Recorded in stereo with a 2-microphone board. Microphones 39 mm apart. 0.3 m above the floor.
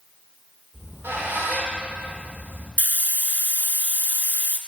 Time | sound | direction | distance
0.7 | a squeak | 85° right | 3 m
2.8 | a hiss | 55° left (ahead or behind) | 0.7 m